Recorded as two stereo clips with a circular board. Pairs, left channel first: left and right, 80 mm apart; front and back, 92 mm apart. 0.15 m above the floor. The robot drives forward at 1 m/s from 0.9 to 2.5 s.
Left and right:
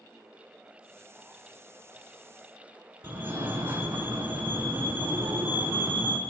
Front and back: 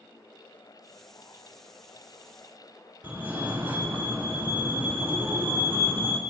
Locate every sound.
3.0 s a fire alarm: 125° right, 3 m